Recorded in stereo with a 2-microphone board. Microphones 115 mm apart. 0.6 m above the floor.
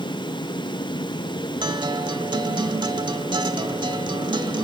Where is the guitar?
40° right (ahead or behind), 0.9 m.